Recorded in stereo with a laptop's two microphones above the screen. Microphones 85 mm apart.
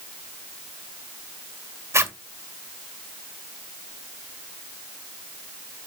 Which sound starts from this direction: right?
A zipper, at 1.9 s.